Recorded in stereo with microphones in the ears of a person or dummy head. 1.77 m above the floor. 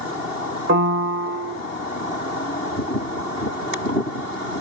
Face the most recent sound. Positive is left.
turn(degrees=-60)  # may be behind; listen again after turning